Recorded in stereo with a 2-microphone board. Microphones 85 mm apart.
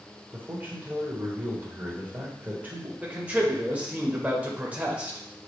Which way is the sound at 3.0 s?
15° right (ahead or behind).